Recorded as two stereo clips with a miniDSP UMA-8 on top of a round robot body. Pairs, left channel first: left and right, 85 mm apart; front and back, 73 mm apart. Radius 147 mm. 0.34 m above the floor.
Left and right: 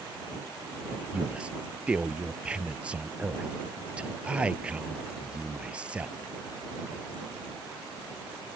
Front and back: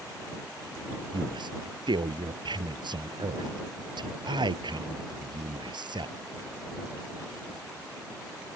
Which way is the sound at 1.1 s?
170° right.